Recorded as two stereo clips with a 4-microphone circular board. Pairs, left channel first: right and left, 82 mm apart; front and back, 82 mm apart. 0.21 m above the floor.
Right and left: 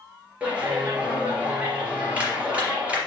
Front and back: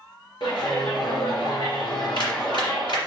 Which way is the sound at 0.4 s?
15° left.